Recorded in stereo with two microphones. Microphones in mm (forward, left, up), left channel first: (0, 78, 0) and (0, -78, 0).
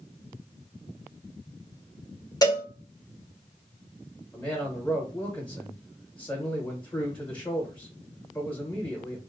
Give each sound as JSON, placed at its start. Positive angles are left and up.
{"t": 2.4, "sound": "a cowbell", "side_deg": 25, "distance_m": 1.1}
{"t": 4.3, "sound": "a man speaking", "side_deg": 15, "distance_m": 1.0}